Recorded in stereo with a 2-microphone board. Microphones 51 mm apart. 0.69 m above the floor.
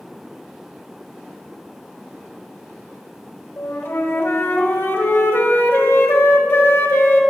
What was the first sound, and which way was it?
A flute, 60° left (ahead or behind).